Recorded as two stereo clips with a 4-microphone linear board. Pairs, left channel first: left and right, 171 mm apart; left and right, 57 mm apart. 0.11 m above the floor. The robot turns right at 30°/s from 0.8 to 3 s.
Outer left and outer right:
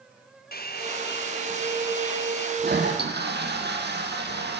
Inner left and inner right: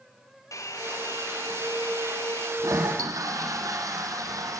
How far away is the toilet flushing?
About 4 m.